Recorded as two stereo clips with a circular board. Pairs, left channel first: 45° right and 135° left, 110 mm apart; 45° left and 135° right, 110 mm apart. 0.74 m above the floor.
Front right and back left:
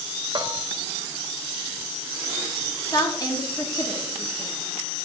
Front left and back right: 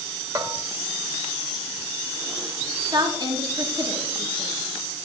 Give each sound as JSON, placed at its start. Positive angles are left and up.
{"t": 0.3, "sound": "a bell", "azimuth_deg": 170, "distance_m": 1.0}
{"t": 2.9, "sound": "a woman speaking", "azimuth_deg": -90, "distance_m": 1.8}